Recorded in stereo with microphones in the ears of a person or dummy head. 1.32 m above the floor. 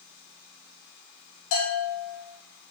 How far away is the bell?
About 3 m.